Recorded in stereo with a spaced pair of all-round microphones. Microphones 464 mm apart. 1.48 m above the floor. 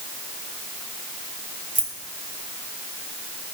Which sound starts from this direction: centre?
Keys jangling, at 1.8 s.